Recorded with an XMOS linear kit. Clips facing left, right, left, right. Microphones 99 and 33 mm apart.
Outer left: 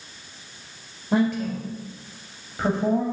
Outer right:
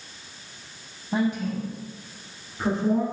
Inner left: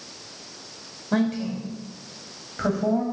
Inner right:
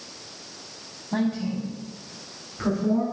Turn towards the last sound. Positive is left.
turn(degrees=75)  # may be behind; listen again after turning